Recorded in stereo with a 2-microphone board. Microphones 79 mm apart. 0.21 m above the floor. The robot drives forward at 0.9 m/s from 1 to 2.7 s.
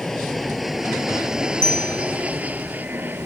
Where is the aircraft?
5° left (ahead or behind); by 3.2 s 25° right (ahead or behind).